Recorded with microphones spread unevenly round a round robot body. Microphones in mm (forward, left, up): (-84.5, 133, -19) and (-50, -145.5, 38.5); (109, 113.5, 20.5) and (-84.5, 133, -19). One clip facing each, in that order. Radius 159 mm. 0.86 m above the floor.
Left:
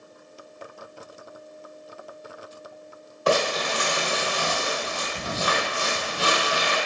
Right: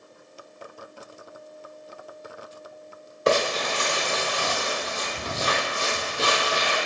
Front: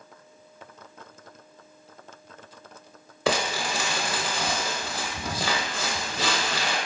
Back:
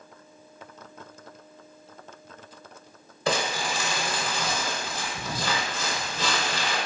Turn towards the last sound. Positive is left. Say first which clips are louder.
# even, front 1 dB
turn(degrees=-20)